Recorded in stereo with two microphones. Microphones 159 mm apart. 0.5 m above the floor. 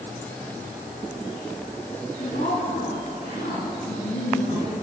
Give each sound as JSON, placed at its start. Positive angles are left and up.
{"t": 2.2, "sound": "a woman speaking", "side_deg": 80, "distance_m": 7.0}